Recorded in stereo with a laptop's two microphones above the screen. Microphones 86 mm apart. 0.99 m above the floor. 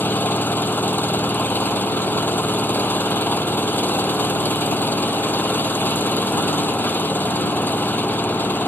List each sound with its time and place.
0.0 s an engine running: 20° left (ahead or behind)